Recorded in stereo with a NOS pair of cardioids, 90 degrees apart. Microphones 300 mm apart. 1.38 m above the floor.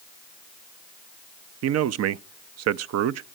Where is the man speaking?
60° right, 0.5 m.